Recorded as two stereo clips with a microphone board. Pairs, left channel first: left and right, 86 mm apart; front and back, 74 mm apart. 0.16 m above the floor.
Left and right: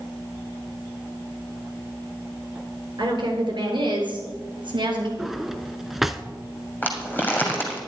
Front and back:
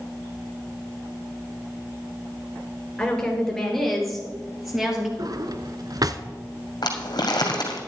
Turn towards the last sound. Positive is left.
turn(degrees=20)